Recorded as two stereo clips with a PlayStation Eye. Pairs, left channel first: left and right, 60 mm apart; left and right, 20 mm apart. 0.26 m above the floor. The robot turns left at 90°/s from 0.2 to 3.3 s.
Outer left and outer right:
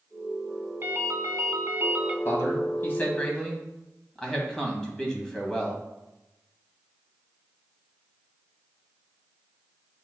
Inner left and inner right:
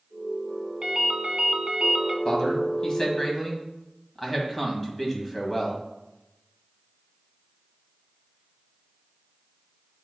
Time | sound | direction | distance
0.8 | a ringtone | 40° right | 0.9 m
2.2 | a man speaking | 110° left | 1.9 m